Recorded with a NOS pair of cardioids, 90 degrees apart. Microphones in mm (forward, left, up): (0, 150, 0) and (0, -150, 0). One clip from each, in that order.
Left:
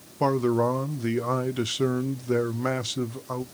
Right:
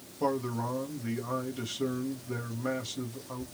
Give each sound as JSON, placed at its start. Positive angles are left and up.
{"t": 0.2, "sound": "a man speaking", "azimuth_deg": 45, "distance_m": 0.7}